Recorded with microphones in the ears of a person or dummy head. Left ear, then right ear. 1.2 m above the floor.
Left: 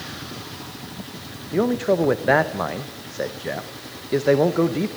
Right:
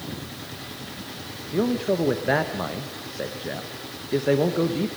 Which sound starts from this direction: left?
A man speaking, at 1.5 s.